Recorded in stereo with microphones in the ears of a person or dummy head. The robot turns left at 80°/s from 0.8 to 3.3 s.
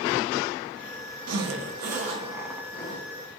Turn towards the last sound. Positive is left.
turn(degrees=110)